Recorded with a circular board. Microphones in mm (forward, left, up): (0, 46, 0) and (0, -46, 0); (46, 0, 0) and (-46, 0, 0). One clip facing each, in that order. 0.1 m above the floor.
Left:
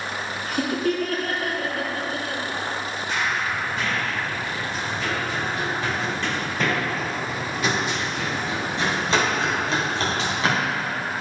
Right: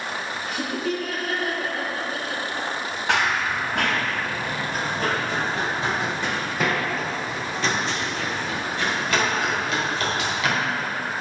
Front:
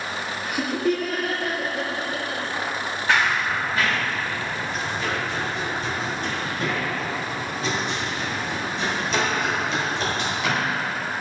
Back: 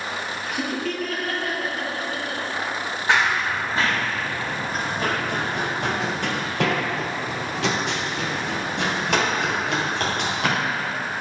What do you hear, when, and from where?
0.5 s laughter: 80° left, 2 m; by 2.4 s 65° left, 3 m
3.1 s running footsteps: 110° right, 1.9 m; by 10.9 s 145° left, 3 m